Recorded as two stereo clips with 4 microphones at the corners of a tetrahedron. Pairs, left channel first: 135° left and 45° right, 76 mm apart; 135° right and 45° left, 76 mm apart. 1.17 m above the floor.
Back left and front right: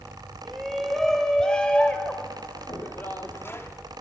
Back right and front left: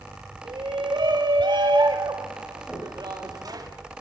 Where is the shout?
45° left, 2.5 m; by 3.7 s 80° left, 3 m.